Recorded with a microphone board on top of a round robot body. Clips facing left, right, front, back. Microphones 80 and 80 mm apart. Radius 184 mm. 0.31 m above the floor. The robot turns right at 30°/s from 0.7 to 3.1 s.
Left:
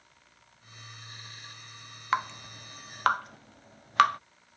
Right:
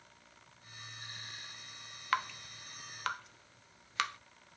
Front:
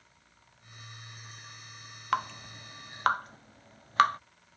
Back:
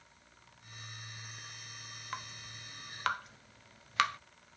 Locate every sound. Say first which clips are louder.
2.1 s dripping: left 5 dB, front 14 dB; 20° left; by 4.2 s 50° left